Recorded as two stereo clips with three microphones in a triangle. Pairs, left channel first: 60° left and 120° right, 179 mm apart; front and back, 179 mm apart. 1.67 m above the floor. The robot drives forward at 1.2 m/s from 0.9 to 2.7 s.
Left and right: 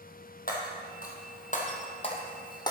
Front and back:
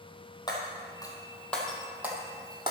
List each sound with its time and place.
0.5 s breaking glass: 60° left, 2.5 m; by 2.7 s 120° left, 2.5 m